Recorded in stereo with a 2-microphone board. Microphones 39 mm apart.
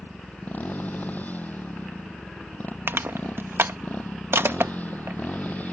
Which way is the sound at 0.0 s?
45° left (ahead or behind).